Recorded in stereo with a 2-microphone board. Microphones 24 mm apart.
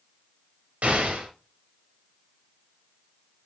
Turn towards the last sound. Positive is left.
turn(degrees=-60)  # may be behind; listen again after turning